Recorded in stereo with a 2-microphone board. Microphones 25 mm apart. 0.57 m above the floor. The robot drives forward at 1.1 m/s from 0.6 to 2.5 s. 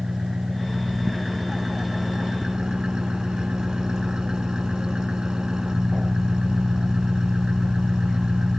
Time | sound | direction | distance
0.0 | an engine running | 25° right (ahead or behind) | ?